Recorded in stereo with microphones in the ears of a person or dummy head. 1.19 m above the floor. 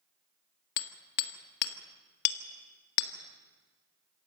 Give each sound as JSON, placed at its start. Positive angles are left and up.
{"t": 0.8, "sound": "hammering", "side_deg": 55, "distance_m": 1.5}